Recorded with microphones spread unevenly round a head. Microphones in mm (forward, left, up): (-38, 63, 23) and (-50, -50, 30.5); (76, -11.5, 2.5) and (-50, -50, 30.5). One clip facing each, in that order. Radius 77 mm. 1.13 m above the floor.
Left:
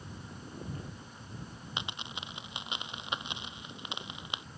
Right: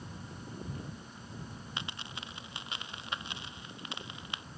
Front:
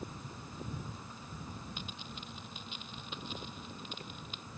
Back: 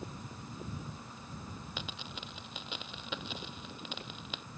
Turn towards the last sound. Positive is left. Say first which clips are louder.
# left 3 dB, back 2 dB
turn(degrees=155)